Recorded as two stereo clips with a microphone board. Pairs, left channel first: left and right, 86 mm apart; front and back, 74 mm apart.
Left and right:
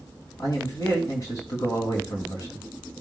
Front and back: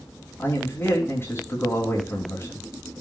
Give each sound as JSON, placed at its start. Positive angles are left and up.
{"t": 0.4, "sound": "a man speaking", "azimuth_deg": 50, "distance_m": 3.0}